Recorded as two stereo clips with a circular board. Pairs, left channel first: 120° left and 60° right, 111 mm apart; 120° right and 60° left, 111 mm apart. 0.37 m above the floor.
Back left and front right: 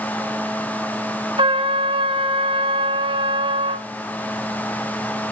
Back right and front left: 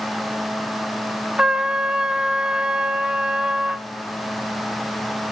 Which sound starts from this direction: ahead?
A trumpet, at 1.4 s.